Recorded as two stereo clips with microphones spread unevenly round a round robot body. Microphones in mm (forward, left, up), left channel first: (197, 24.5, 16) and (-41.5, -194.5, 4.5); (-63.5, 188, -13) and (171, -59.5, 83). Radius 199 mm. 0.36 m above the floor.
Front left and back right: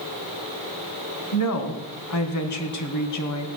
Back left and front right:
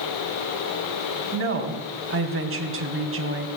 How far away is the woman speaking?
About 3 m.